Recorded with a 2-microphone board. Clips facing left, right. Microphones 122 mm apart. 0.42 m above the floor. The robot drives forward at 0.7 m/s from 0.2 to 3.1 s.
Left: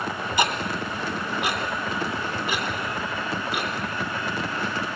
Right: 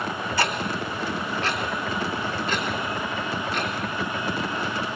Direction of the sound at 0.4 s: 15° left (ahead or behind).